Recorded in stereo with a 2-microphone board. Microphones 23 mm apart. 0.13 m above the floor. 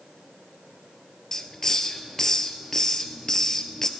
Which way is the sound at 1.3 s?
20° left (ahead or behind).